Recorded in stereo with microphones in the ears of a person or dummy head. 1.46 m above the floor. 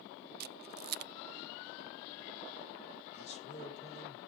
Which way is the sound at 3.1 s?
40° left (ahead or behind).